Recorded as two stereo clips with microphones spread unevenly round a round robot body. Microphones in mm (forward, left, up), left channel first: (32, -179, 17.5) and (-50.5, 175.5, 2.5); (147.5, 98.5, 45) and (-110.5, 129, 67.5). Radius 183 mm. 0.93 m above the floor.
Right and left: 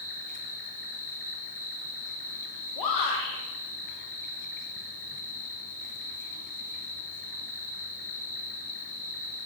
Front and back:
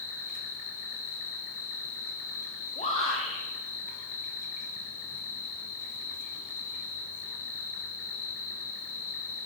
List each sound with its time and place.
0.0 s an insect: 20° right, 1.4 m
2.8 s a shout: 65° right, 1.2 m